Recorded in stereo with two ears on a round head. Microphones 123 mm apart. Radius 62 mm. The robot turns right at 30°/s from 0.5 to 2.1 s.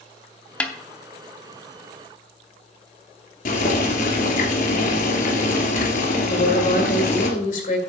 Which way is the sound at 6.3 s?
60° left (ahead or behind).